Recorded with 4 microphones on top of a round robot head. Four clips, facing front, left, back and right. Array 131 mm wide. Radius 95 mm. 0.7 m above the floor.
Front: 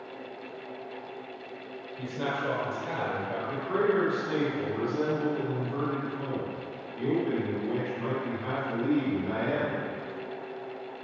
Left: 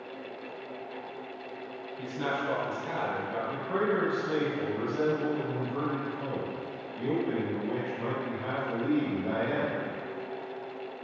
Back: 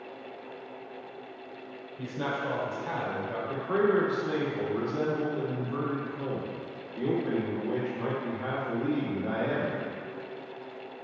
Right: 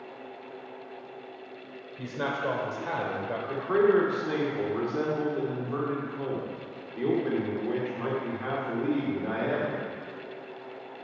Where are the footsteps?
I don't hear footsteps.